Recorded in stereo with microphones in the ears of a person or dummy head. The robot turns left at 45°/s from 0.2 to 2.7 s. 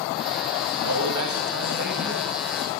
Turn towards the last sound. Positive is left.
turn(degrees=180)